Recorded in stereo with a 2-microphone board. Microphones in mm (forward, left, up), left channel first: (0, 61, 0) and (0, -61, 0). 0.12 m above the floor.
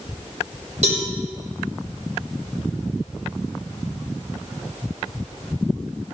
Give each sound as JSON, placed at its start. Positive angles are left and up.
{"t": 0.8, "sound": "a cowbell", "side_deg": -65, "distance_m": 5.5}